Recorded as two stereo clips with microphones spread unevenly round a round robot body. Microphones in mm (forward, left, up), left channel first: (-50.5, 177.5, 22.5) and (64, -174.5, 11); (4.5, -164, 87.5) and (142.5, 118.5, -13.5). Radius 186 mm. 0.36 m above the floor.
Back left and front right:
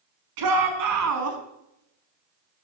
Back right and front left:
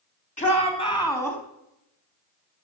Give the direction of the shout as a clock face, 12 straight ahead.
1 o'clock.